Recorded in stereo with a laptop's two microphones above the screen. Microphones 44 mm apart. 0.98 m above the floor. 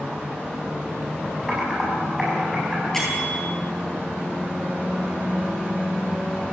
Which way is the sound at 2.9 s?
10° left (ahead or behind).